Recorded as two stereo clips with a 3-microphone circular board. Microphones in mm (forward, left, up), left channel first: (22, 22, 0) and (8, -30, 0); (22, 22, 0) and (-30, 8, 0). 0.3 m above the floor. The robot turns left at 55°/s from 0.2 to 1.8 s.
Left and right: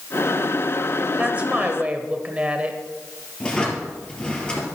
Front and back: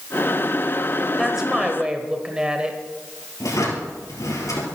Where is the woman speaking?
85° right, 1.2 m; by 2.8 s 120° right, 1.2 m.